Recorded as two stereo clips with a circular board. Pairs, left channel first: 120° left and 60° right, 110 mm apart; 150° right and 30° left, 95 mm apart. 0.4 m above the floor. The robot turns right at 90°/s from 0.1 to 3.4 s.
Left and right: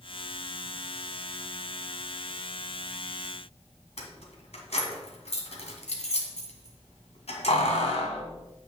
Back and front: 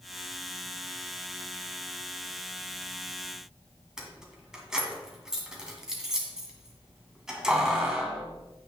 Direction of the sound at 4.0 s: 115° left.